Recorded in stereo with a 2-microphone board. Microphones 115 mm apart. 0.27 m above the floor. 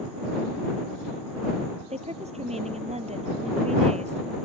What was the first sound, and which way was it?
A woman speaking, 70° right (ahead or behind).